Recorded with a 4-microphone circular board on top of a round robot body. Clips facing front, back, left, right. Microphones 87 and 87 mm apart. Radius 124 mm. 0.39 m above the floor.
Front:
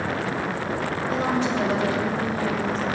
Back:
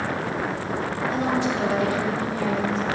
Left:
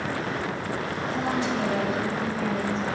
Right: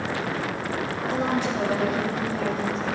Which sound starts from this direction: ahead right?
A woman speaking, at 1.1 s.